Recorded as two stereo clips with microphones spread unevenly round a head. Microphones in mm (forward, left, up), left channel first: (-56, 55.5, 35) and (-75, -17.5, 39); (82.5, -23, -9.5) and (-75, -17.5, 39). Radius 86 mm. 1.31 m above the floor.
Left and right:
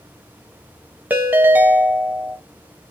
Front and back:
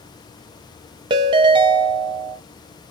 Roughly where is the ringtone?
Behind.